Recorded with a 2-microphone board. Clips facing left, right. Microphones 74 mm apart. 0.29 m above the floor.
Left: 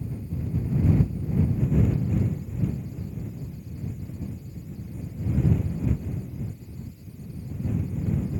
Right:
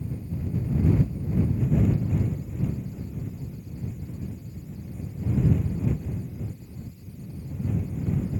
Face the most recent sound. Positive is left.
No sound to turn to.